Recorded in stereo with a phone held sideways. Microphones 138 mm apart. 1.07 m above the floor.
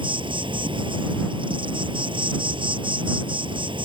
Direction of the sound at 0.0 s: 35° right (ahead or behind).